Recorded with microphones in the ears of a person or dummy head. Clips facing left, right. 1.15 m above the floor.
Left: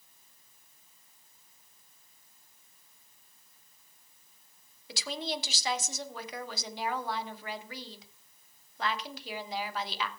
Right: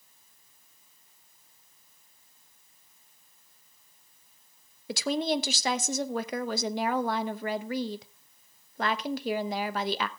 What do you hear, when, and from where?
4.9 s a woman speaking: 50° right (ahead or behind), 1.0 m